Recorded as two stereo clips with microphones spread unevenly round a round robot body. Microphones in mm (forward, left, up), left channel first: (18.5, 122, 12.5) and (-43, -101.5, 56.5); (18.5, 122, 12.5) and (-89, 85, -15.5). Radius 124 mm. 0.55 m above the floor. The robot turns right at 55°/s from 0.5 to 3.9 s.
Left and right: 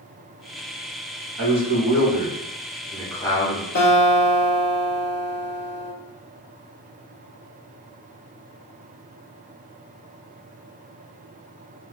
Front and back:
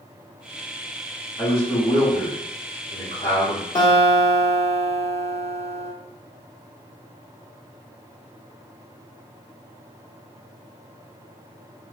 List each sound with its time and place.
1.4 s a man speaking: 90° right, 1.5 m; by 3.6 s 35° left, 1.5 m
3.8 s a guitar: 80° left, 1.8 m; by 5.9 s 90° left, 1.8 m